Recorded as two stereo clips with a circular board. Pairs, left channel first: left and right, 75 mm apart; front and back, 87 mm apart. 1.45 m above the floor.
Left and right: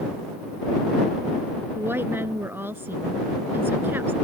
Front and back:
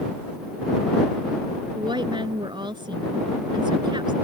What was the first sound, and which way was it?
A woman speaking, 150° right.